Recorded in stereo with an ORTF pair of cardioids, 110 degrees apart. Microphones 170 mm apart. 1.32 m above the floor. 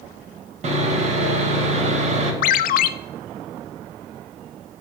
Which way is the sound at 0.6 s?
45° right.